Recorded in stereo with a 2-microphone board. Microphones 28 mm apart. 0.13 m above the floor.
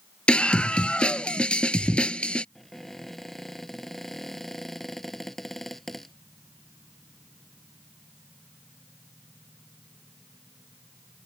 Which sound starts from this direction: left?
A scream, at 0.3 s.